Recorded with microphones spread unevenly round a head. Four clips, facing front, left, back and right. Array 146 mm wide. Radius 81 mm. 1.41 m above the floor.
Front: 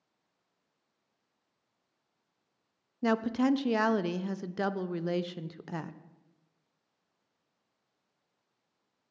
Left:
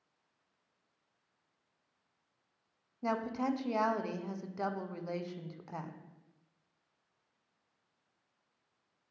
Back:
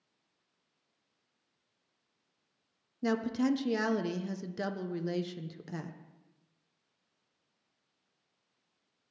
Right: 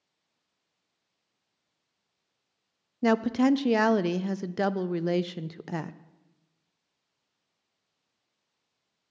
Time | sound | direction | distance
3.0 | a woman speaking | 80° right | 0.5 m